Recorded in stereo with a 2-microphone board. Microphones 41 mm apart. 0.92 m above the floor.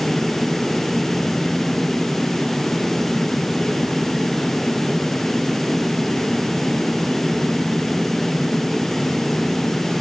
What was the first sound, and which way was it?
Only background noise.